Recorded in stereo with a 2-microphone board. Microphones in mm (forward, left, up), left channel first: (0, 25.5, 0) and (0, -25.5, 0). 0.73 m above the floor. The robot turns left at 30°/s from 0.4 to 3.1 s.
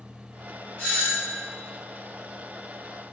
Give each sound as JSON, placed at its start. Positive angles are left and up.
{"t": 0.8, "sound": "a doorbell", "side_deg": 35, "distance_m": 1.2}